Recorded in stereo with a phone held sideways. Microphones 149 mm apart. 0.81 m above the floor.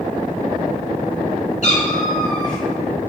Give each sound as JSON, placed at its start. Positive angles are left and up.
{"t": 1.6, "sound": "a cat meowing", "side_deg": 55, "distance_m": 4.5}